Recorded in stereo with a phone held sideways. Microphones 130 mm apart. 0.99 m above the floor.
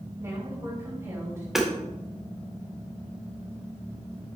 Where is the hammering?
5° right (ahead or behind), 2 m.